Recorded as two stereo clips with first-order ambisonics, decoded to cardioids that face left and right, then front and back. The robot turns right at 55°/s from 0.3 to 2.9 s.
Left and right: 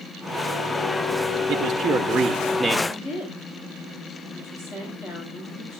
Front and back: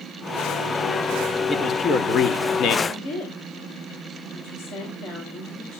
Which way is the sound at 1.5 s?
70° right.